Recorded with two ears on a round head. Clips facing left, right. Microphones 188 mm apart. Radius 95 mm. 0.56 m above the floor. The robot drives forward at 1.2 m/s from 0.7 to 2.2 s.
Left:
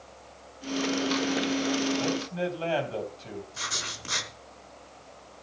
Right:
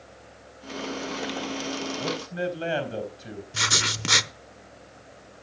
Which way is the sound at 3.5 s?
75° right (ahead or behind).